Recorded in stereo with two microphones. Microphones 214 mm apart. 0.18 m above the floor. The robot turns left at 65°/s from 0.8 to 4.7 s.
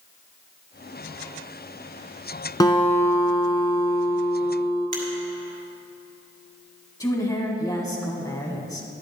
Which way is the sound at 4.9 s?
40° right (ahead or behind).